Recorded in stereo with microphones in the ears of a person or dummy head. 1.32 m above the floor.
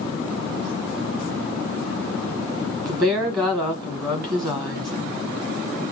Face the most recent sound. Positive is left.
turn(degrees=-20)  # may be behind; listen again after turning